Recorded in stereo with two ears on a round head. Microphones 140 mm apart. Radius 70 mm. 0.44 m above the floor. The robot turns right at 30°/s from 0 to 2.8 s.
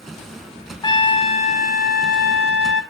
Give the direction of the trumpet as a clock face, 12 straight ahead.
11 o'clock.